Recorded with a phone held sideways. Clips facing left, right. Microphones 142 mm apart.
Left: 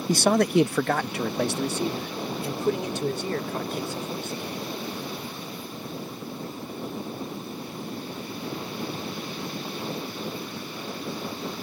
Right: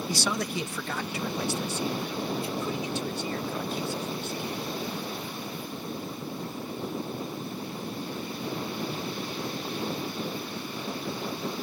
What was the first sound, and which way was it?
A man speaking, 45° left (ahead or behind).